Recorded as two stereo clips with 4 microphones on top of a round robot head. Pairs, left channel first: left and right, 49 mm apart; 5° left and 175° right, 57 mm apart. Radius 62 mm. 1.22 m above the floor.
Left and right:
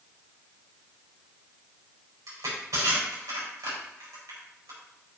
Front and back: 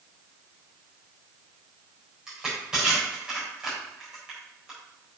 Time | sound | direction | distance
2.3 | crushing | 95° right | 4 m